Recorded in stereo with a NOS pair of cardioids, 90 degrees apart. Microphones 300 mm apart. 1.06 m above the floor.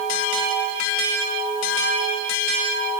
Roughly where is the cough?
I don't hear a cough.